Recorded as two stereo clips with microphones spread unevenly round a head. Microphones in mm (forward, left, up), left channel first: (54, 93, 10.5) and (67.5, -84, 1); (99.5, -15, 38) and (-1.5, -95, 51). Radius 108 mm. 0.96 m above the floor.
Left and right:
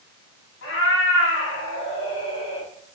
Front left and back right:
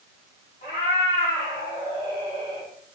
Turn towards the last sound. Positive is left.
turn(degrees=95)